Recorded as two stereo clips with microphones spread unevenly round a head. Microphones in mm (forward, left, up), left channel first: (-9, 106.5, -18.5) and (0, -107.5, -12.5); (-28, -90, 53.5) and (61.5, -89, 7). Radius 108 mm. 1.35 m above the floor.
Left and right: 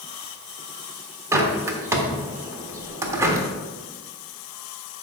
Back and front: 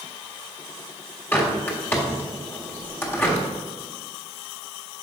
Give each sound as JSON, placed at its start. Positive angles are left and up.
{"t": 1.3, "sound": "a bird", "azimuth_deg": -160, "distance_m": 1.3}